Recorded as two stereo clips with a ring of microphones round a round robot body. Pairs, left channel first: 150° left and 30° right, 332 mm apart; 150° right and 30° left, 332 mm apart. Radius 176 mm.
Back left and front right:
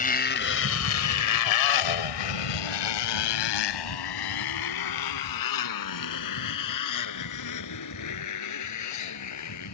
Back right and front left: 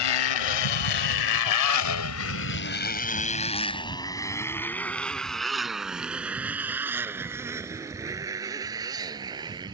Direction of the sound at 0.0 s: 145° right.